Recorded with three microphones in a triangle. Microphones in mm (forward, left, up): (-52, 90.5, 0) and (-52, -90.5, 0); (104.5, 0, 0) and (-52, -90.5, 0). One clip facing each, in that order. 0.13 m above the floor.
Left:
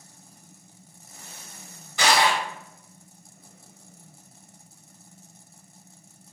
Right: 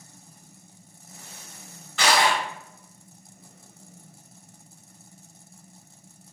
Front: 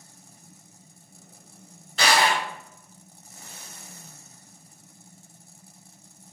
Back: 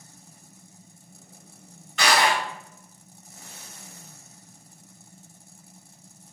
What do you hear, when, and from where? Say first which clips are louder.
2.0 s crushing: even, even; 25° left, 1.6 m